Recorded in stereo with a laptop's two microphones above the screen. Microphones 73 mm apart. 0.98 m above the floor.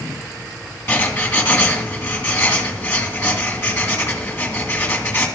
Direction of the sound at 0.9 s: 35° left (ahead or behind).